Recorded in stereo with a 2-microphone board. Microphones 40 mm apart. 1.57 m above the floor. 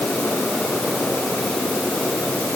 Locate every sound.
Only background noise.